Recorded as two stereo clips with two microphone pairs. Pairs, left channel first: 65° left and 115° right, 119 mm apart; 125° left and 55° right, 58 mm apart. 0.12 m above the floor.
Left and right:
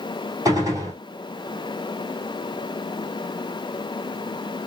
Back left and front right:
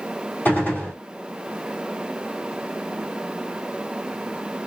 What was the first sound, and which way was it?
A gunshot, 175° right.